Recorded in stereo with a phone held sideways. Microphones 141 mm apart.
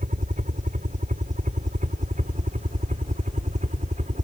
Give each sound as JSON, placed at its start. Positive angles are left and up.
{"t": 0.0, "sound": "a helicopter", "side_deg": -65}